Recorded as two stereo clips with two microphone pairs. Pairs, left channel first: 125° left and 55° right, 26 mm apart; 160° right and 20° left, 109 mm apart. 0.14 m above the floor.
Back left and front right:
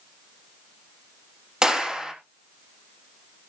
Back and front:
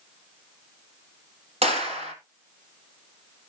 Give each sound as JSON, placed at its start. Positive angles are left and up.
{"t": 1.6, "sound": "a clap", "azimuth_deg": 10, "distance_m": 4.0}